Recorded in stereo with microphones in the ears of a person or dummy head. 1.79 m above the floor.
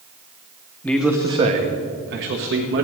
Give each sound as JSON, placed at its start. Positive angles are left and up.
{"t": 0.8, "sound": "a man speaking", "side_deg": 5, "distance_m": 1.0}